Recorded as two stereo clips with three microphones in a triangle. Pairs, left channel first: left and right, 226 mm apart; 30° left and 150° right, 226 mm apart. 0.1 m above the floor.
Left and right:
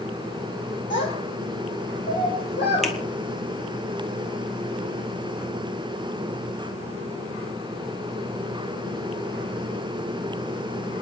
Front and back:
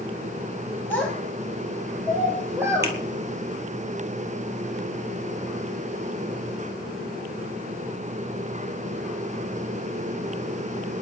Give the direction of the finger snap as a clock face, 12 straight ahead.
6 o'clock.